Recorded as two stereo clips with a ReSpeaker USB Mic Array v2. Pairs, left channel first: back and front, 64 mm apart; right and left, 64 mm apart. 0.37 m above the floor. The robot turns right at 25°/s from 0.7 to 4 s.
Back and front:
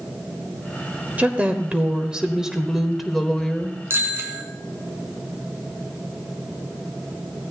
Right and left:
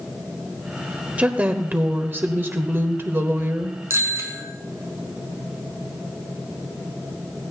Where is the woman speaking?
40° left, 1.2 m; by 3.8 s 110° left, 1.2 m.